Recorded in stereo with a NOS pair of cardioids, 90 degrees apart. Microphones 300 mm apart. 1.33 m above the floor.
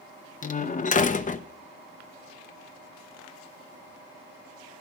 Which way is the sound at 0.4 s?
25° left.